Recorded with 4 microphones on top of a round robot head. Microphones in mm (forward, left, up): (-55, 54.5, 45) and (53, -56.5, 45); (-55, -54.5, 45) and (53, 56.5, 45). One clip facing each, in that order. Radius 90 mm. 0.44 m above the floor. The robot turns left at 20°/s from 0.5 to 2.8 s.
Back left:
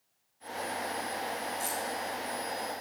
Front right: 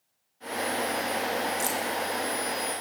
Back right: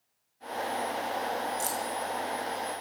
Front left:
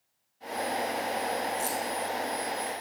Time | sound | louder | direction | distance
1.6 | keys jangling | front right 6 dB, front left 1 dB | 75° right | 2 m